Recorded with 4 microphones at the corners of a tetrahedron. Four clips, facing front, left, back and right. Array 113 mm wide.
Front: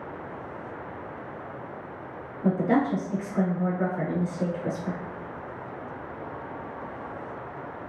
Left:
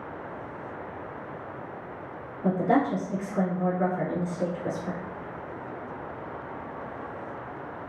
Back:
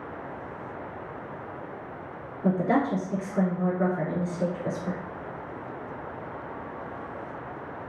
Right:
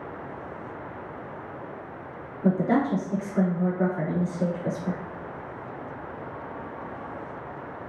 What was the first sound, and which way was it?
A woman speaking, 60° right.